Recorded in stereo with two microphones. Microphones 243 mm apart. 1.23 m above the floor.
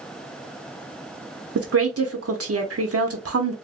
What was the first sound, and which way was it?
A woman speaking, 70° right (ahead or behind).